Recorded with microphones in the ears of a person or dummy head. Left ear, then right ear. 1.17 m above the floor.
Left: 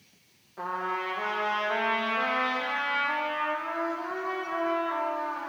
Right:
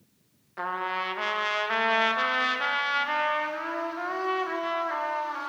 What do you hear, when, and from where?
0.6 s a trumpet: 60° right (ahead or behind), 1.0 m